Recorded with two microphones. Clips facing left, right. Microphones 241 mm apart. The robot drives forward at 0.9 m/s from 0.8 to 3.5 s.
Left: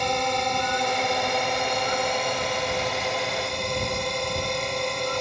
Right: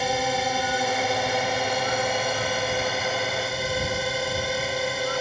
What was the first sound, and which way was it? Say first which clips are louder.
A drone: right 1 dB; 5° right (ahead or behind).